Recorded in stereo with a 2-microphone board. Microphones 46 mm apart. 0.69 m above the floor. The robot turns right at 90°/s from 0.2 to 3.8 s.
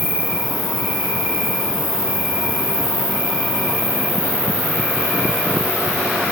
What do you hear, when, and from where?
0.0 s an insect: straight ahead, 1.2 m; by 6.3 s 40° right, 1.2 m